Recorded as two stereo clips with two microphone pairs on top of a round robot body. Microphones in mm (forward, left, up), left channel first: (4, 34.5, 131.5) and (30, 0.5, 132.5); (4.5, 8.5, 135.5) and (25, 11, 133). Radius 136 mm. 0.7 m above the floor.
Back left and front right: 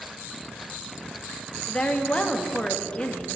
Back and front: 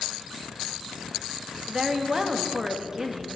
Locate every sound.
1.7 s a woman speaking: 65° left, 1.8 m